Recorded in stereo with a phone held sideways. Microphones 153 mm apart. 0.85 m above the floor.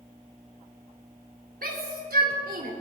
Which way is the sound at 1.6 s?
75° right (ahead or behind).